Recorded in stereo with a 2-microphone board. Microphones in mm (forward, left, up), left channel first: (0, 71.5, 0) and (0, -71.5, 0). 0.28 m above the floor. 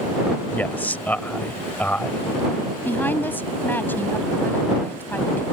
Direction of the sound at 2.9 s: 15° left (ahead or behind).